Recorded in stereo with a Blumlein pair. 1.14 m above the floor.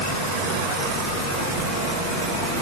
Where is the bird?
No bird in this recording.